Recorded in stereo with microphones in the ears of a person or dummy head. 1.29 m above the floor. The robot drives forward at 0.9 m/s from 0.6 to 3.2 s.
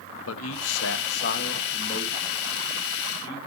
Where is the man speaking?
80° left, 1.1 m; by 3.4 s 25° left (ahead or behind), 2.5 m.